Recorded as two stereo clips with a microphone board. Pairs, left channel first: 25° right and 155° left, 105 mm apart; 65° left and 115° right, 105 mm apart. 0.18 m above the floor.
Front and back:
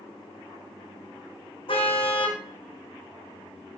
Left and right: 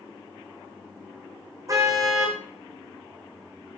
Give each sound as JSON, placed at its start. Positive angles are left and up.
{"t": 1.7, "sound": "a car horn", "azimuth_deg": -55, "distance_m": 5.0}